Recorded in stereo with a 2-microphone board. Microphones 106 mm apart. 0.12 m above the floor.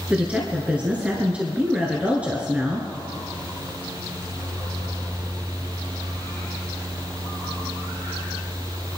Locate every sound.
0.1 s a woman speaking: 10° right (ahead or behind), 1.9 m